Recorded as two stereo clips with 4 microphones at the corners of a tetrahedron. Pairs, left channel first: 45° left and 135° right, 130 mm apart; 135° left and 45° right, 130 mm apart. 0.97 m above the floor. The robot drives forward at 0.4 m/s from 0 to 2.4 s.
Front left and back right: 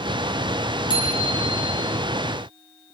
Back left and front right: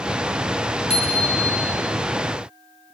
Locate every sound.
0.9 s a bicycle bell: 95° left, 9 m; by 1.7 s 100° left, 9.5 m